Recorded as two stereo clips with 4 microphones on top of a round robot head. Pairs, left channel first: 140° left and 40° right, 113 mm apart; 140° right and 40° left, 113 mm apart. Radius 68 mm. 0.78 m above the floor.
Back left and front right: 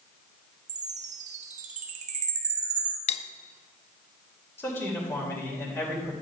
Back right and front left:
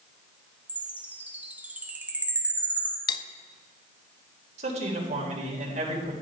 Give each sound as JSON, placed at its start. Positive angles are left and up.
{"t": 0.7, "sound": "a chime", "azimuth_deg": -35, "distance_m": 1.3}
{"t": 3.1, "sound": "cutlery clinking", "azimuth_deg": 170, "distance_m": 0.6}
{"t": 4.6, "sound": "a man speaking", "azimuth_deg": 70, "distance_m": 3.5}